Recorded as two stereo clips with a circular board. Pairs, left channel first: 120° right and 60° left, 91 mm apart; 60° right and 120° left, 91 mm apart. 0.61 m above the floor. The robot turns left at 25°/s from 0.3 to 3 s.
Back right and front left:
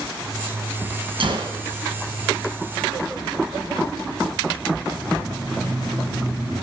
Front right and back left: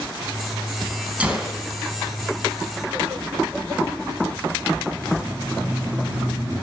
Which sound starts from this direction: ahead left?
A gunshot, at 1.2 s.